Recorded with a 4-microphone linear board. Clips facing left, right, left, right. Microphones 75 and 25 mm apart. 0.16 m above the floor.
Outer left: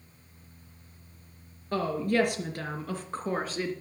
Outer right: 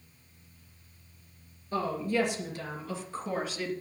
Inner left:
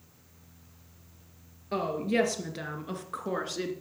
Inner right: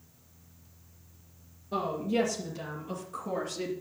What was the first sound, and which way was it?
A woman speaking, 60° left (ahead or behind).